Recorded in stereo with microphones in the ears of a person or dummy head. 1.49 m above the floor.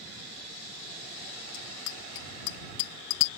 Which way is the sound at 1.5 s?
70° left (ahead or behind).